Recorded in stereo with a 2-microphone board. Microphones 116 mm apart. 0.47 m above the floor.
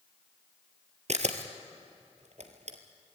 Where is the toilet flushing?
I don't hear a toilet flushing.